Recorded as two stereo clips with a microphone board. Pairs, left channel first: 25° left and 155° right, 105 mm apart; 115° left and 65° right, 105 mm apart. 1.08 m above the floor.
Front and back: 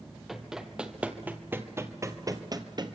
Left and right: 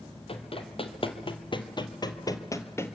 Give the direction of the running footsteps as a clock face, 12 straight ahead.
8 o'clock.